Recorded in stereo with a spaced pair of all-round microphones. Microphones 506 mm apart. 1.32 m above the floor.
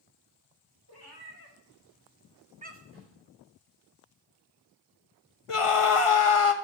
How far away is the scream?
About 1.3 m.